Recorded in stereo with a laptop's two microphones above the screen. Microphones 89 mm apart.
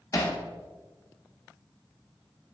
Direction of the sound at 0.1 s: 40° left (ahead or behind).